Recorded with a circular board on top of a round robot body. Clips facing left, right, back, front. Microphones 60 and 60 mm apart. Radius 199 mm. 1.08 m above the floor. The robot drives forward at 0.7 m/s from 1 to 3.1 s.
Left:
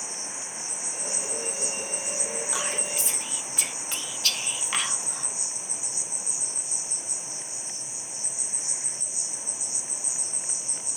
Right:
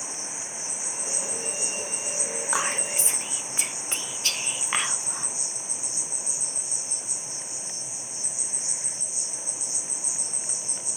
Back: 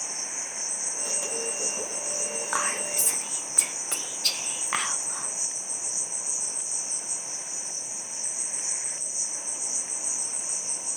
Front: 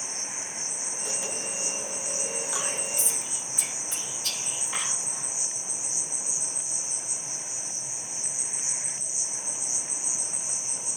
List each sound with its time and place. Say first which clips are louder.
0.0 s an insect: right 1 dB, even; 15° right, 2 m; by 11.0 s 50° right, 1.0 m
2.5 s whispering: right 7 dB, back 4 dB; 140° right, 0.6 m; by 5.3 s 155° right, 0.9 m